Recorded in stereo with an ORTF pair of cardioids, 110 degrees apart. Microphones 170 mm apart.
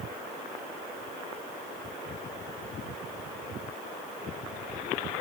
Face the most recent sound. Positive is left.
No sound to turn to.